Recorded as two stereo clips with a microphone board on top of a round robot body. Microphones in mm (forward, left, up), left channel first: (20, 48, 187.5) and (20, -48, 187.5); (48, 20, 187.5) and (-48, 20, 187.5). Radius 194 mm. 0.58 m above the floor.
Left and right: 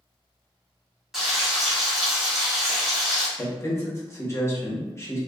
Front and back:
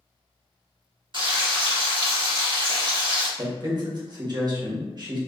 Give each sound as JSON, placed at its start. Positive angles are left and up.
{"t": 1.1, "sound": "frying", "azimuth_deg": -175, "distance_m": 1.7}
{"t": 3.4, "sound": "a man speaking", "azimuth_deg": 145, "distance_m": 1.2}